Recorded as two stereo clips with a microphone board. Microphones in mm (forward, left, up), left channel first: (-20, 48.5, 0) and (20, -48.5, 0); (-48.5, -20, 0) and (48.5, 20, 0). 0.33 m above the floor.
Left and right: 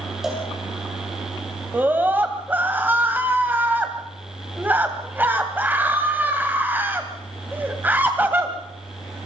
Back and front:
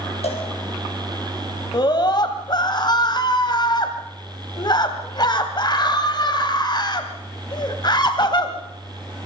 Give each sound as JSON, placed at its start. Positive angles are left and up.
{"t": 0.2, "sound": "a cowbell", "azimuth_deg": -155, "distance_m": 5.0}
{"t": 1.7, "sound": "a scream", "azimuth_deg": -135, "distance_m": 2.0}